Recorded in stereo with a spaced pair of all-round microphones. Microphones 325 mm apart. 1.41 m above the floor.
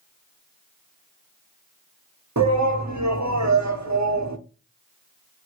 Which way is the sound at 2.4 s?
60° right (ahead or behind).